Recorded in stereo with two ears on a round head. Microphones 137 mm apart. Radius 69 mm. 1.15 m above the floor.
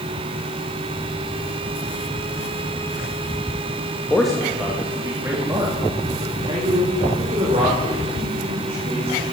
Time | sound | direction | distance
4.1 | a man speaking | 5° left (ahead or behind) | 1.8 m